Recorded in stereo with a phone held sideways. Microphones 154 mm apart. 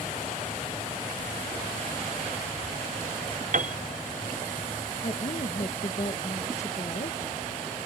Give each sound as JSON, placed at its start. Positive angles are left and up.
{"t": 3.5, "sound": "a piano", "side_deg": -55}
{"t": 5.0, "sound": "a woman speaking", "side_deg": 50}